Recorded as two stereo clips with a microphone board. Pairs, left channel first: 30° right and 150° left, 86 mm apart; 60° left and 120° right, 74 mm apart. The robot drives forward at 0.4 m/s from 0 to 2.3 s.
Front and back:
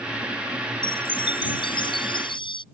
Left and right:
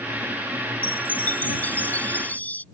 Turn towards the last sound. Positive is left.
turn(degrees=-10)